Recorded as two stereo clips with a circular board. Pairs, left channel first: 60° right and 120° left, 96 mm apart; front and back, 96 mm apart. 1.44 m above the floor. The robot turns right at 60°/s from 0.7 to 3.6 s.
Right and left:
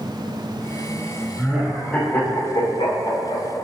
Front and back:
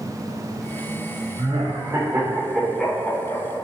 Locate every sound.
1.4 s laughter: 170° right, 1.8 m; by 3.4 s 45° right, 1.8 m